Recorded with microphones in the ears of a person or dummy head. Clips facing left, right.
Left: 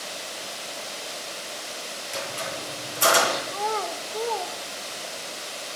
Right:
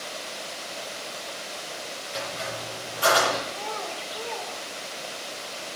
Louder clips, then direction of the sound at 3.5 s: Left 5 dB; 60° left (ahead or behind).